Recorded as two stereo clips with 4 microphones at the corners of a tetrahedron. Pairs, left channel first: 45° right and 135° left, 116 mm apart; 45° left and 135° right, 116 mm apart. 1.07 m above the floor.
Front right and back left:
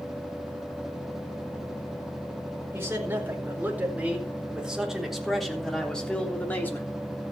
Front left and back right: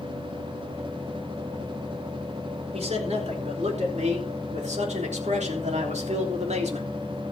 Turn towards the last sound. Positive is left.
turn(degrees=-115)